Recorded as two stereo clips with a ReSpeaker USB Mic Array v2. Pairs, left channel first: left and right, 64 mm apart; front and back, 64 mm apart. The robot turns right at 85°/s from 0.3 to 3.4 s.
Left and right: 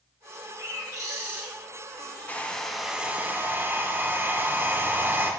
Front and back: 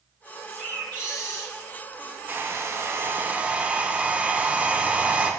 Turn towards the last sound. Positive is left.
turn(degrees=-125)